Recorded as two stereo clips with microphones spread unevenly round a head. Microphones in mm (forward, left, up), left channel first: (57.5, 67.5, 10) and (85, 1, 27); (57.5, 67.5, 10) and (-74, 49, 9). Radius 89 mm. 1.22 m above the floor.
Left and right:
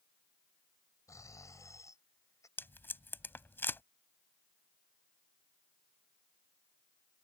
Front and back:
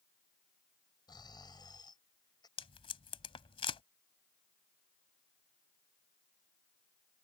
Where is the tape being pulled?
50° left.